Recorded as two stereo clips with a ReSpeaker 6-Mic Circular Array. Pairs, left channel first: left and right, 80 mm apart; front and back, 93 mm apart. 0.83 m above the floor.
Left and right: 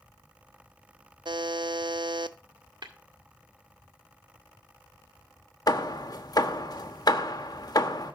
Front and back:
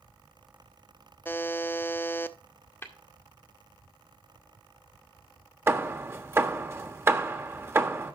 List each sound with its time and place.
1.2 s a buzzer: 65° right, 0.5 m
2.8 s tapping: 65° right, 1.9 m
5.7 s hammering: 120° left, 1.2 m